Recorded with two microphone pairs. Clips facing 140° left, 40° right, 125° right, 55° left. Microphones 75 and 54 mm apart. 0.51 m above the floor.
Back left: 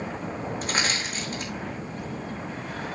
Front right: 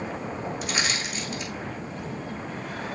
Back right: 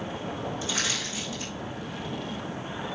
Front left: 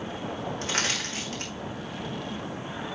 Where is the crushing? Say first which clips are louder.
Back left 2 dB, front left 4 dB; 90° left, 4.5 m.